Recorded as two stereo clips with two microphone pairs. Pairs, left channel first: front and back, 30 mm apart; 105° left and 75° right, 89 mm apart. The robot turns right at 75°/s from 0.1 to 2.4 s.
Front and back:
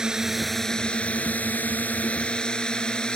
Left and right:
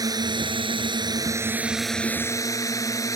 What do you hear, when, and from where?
0.0 s a drone: 115° right; by 3.2 s 60° left